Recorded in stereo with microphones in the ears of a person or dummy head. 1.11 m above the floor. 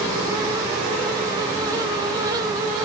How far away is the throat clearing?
I don't hear throat clearing.